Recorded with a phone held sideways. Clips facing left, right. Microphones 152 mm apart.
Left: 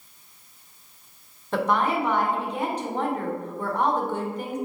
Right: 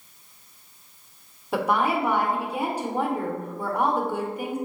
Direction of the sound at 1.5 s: 10° right (ahead or behind).